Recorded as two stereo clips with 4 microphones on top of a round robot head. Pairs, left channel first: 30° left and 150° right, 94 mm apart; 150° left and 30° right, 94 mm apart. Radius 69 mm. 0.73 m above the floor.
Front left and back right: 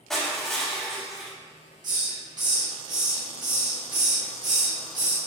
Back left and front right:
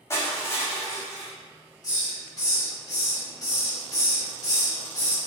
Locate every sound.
0.1 s crushing: 115° left, 0.5 m
1.8 s a hiss: 175° right, 1.5 m